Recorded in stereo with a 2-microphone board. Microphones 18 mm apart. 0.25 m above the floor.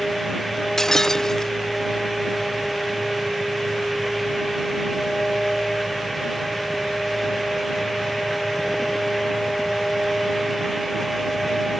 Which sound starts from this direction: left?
Breaking glass, at 0.8 s.